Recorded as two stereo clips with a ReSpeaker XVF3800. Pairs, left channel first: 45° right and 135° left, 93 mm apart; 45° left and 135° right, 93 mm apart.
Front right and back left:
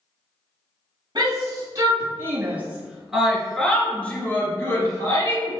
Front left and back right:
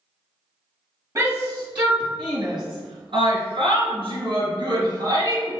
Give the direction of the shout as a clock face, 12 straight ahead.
6 o'clock.